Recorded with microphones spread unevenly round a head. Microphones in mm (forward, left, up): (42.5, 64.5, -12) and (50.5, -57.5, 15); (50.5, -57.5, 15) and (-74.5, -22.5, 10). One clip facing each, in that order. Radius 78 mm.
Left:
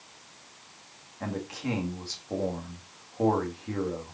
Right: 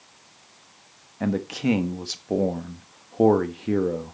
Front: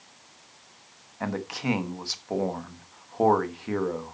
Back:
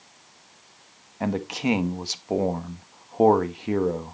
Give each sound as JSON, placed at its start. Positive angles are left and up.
{"t": 1.2, "sound": "a man speaking", "azimuth_deg": -130, "distance_m": 1.6}